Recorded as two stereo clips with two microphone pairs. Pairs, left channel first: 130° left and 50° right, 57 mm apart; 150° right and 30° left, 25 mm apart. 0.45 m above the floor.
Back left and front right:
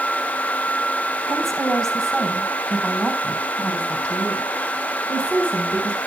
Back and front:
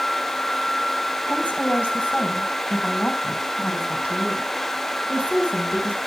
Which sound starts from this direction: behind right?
A woman speaking, at 1.3 s.